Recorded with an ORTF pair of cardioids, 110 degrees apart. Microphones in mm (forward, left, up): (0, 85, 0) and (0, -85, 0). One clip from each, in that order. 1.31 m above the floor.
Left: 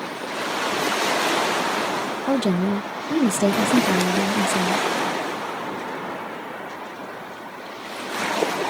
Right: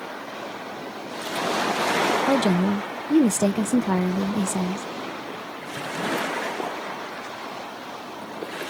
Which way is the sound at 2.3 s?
5° right.